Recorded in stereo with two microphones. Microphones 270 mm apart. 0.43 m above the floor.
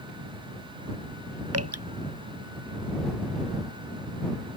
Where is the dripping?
60° right (ahead or behind).